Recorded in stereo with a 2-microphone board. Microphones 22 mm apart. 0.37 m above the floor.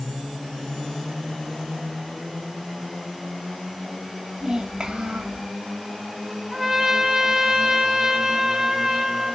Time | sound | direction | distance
4.4 | a child speaking | 30° right (ahead or behind) | 1.5 m
6.5 | a trumpet | 20° right (ahead or behind) | 1.3 m